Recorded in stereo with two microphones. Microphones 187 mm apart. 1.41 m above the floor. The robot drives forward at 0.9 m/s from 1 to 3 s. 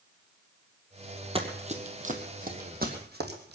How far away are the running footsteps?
About 1.9 m.